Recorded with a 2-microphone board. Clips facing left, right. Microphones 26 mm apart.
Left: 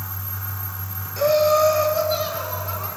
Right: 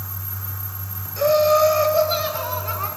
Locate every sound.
1.2 s laughter: 5° left (ahead or behind), 1.6 m; by 2.9 s 40° right (ahead or behind), 3 m